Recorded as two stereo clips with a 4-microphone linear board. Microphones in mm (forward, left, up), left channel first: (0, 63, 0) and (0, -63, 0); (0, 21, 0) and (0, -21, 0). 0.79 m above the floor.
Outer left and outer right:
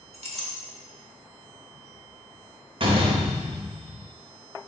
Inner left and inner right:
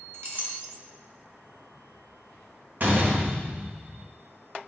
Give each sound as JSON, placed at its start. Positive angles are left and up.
{"t": 0.1, "sound": "a clink", "side_deg": -60, "distance_m": 0.9}
{"t": 2.8, "sound": "a door slam", "side_deg": -45, "distance_m": 0.8}